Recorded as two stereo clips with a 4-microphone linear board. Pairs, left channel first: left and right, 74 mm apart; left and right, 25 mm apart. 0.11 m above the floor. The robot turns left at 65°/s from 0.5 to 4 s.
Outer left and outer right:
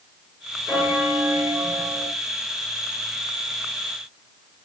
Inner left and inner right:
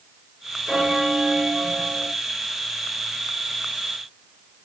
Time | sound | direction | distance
0.7 | a bell | centre (ahead or behind) | 1.6 m